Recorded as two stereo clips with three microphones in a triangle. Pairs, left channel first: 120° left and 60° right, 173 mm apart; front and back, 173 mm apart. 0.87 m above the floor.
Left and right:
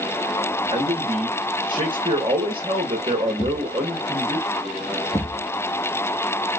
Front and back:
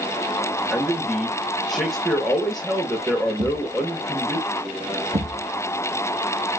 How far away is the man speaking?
About 1.0 m.